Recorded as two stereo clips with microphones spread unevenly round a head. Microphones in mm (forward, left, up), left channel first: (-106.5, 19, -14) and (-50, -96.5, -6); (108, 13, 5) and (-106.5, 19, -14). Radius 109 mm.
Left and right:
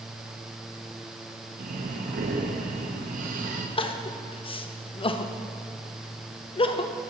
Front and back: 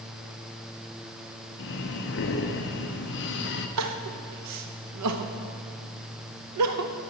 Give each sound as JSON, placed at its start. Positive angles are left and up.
{"t": 1.6, "sound": "breathing", "azimuth_deg": -40, "distance_m": 0.6}
{"t": 3.8, "sound": "crying", "azimuth_deg": 165, "distance_m": 0.7}